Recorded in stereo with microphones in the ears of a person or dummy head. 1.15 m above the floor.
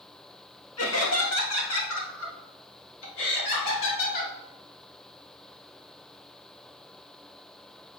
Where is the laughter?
70° left (ahead or behind), 2.0 m; by 4.3 s 60° left (ahead or behind), 3 m.